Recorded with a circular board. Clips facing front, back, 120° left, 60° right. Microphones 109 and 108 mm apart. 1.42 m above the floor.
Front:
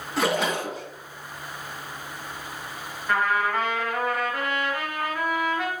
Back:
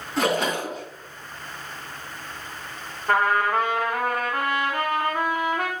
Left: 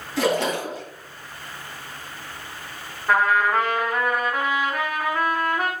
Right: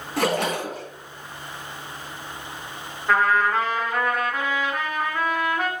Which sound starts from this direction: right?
A splash, at 0.2 s.